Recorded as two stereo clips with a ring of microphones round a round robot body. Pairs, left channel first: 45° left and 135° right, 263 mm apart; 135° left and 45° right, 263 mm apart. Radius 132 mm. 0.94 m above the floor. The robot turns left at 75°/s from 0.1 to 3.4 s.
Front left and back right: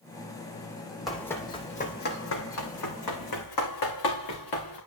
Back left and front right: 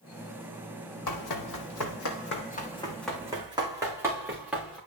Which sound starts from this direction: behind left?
Running footsteps, at 1.1 s.